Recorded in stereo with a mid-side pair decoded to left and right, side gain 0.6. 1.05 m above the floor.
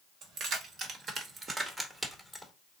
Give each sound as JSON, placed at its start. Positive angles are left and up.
{"t": 0.2, "sound": "keys jangling", "azimuth_deg": -60, "distance_m": 1.3}